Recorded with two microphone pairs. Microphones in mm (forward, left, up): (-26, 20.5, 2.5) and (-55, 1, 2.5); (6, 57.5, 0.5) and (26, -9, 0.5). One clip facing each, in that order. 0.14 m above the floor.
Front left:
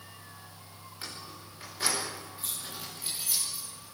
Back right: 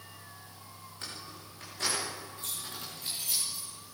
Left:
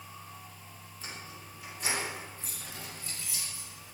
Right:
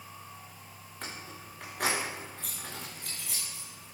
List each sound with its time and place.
1.0 s keys jangling: 45° right, 9.5 m; by 4.0 s 55° right, 8.5 m